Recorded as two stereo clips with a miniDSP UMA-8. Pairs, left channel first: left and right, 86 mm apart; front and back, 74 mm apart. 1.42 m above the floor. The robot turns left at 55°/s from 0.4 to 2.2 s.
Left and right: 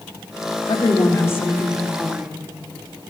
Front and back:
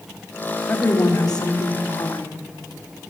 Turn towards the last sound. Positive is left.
turn(degrees=-20)